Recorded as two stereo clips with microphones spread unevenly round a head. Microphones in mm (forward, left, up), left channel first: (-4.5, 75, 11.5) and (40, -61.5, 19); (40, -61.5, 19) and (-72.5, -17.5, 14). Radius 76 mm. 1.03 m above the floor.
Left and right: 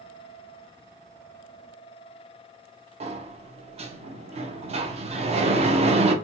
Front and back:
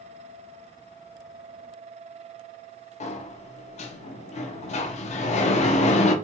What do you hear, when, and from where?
3.0 s a sliding door: 30° right, 0.5 m